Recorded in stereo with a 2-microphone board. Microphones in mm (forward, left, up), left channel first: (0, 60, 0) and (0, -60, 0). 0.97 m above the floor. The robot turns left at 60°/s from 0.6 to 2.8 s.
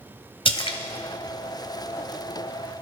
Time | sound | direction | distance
0.5 | a splash | 50° left (ahead or behind) | 1.3 m